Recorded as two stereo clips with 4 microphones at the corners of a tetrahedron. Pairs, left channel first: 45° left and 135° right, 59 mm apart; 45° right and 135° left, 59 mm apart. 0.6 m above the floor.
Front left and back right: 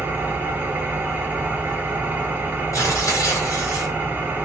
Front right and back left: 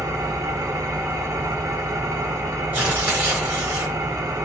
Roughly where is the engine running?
Behind.